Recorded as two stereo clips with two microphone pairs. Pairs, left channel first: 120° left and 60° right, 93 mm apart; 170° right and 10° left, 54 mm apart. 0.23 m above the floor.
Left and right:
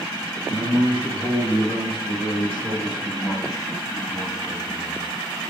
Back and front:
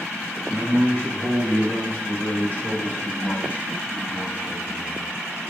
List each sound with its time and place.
0.5 s a man speaking: 135° left, 3 m; by 5.1 s 170° right, 1.1 m